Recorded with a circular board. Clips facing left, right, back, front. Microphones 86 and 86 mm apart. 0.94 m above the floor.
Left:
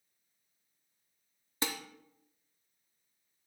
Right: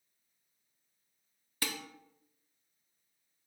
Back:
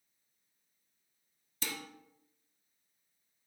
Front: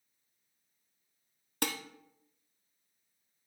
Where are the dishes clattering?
25° left, 0.7 m.